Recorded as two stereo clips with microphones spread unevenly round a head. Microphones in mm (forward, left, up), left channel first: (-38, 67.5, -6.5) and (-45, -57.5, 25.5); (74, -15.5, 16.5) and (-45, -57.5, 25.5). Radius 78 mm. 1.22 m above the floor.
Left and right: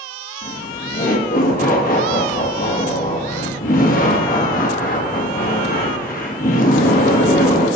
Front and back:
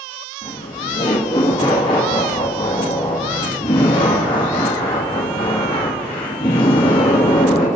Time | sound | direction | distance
0.4 | laughter | 80° left | 1.9 m